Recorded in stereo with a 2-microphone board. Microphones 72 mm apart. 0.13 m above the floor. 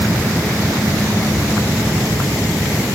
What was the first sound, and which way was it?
Only background noise.